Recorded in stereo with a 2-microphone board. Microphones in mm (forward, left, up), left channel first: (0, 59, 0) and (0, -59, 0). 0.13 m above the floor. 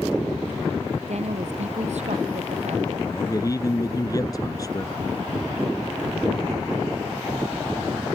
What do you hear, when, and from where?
1.1 s a woman speaking: 70° right (ahead or behind)
3.1 s a man speaking: 30° left (ahead or behind)